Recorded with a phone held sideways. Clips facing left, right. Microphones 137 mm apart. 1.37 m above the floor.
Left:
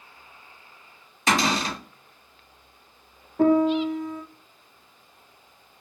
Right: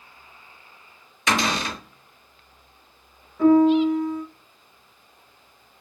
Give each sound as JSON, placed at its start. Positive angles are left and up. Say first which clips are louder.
{"t": 1.3, "sound": "a cupboard door", "louder": "left 1 dB", "side_deg": 40, "distance_m": 1.9}
{"t": 3.4, "sound": "a piano", "louder": "right 4 dB", "side_deg": 55, "distance_m": 0.5}